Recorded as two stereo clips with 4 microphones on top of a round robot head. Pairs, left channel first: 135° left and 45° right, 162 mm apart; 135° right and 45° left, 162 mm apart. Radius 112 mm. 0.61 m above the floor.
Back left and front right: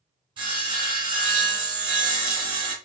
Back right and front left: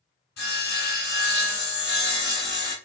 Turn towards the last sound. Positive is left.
turn(degrees=-105)